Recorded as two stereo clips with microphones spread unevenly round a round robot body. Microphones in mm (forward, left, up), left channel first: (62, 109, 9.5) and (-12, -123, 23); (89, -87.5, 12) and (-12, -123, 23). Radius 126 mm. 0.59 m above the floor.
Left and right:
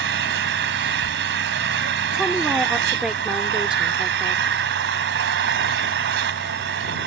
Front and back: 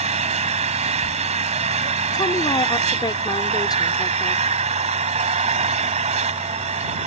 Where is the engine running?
155° right.